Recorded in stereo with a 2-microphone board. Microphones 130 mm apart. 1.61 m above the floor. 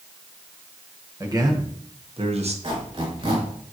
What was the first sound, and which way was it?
A man speaking, 25° right (ahead or behind).